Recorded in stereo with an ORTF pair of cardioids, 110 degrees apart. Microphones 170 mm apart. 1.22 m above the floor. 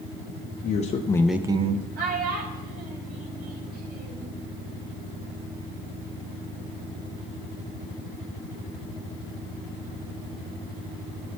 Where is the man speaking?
55° left, 0.8 m; by 1.9 s 50° right, 0.7 m.